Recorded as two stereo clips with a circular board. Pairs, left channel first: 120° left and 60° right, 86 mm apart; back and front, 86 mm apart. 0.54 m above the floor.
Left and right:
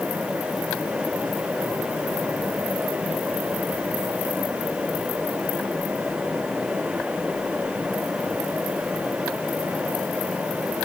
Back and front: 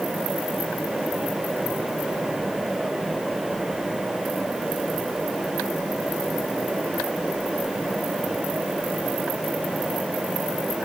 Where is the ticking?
No ticking in this recording.